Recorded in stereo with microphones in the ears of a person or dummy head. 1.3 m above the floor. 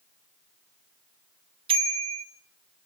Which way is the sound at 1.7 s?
30° right (ahead or behind).